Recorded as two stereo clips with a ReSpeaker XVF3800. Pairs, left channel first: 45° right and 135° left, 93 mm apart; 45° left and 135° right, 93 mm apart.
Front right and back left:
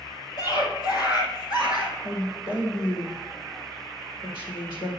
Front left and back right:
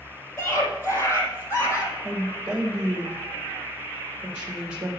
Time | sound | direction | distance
0.4 | a scream | 15° right | 2.5 m
2.0 | a woman speaking | 60° right | 3.5 m